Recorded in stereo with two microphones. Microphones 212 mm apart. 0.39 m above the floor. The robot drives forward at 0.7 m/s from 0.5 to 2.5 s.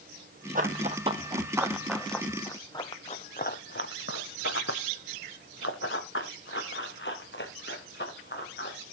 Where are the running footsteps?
40° right (ahead or behind), 0.9 m; by 8.8 s 50° left (ahead or behind), 3.5 m.